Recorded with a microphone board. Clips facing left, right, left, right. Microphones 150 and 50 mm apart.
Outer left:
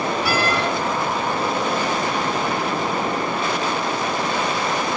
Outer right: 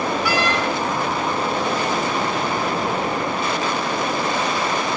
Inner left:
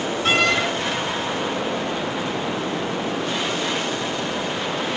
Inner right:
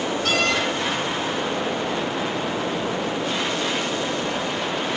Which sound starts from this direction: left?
A door slam, at 0.2 s.